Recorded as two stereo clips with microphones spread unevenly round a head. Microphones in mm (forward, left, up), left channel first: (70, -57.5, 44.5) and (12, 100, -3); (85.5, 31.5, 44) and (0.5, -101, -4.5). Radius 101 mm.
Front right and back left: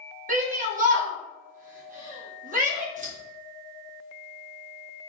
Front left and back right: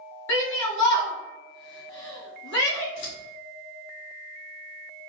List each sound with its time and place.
0.3 s a shout: 70° left, 2 m
3.0 s scissors: 65° left, 1.9 m